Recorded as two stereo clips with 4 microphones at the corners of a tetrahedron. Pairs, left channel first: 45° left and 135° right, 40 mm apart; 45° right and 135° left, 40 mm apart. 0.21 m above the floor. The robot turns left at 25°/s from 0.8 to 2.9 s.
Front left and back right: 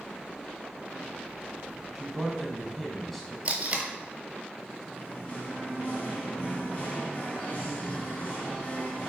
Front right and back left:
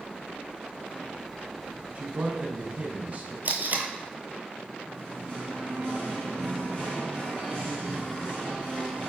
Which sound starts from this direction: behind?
Tape being pulled, at 3.5 s.